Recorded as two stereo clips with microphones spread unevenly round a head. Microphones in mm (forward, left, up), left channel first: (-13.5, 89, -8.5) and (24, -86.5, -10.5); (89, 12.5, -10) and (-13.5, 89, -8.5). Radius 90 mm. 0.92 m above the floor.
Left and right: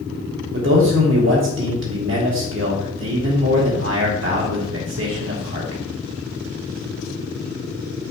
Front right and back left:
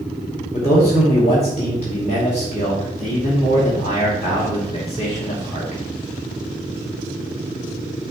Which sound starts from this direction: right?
A man speaking, at 0.5 s.